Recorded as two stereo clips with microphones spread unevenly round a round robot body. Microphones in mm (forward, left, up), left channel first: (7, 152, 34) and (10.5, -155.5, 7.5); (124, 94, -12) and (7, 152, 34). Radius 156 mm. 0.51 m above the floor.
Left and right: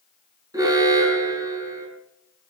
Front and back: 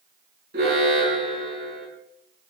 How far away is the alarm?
About 6 m.